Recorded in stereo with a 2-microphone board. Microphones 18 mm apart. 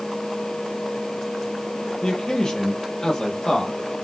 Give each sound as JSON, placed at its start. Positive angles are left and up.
{"t": 2.0, "sound": "a man speaking", "side_deg": 40, "distance_m": 7.5}